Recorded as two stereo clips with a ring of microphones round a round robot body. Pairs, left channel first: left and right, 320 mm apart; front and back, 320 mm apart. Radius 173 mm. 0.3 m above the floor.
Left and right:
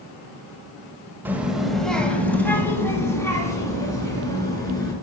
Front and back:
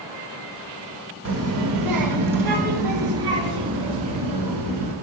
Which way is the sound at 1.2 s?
170° right.